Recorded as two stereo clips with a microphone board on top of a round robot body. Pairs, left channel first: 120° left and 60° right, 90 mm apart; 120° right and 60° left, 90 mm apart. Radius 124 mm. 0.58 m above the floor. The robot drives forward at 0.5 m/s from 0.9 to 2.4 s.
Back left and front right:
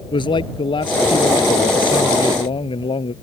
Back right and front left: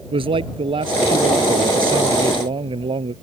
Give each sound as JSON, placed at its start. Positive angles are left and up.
{"t": 0.1, "sound": "a man speaking", "azimuth_deg": 85}